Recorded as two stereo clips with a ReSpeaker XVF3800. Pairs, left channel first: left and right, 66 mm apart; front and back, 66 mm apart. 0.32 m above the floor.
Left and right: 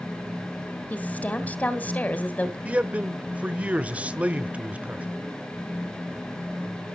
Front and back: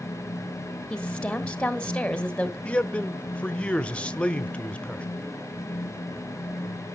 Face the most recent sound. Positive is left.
turn(degrees=-50)